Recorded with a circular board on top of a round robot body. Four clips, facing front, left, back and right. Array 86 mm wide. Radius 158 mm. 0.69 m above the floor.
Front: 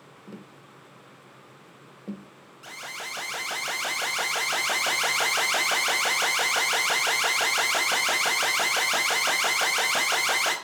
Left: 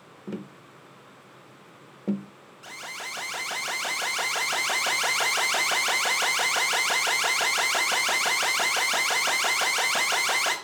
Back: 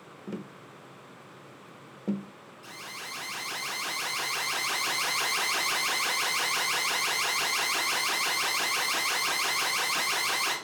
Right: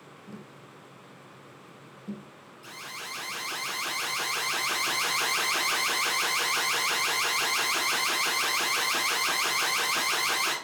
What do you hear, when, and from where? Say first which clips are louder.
0.3 s tapping: left 10 dB, back 6 dB; 115° left, 0.6 m
2.6 s an alarm: left 3 dB, front 5 dB; 40° left, 5 m